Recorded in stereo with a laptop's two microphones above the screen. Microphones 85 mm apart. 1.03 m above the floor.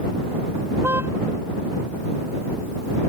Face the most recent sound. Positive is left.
turn(degrees=-30)  # may be behind; listen again after turning